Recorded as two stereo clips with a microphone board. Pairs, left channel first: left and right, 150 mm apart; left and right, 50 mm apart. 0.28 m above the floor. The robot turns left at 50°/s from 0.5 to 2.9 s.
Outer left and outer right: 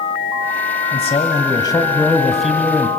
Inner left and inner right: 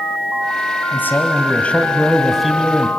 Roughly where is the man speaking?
Left.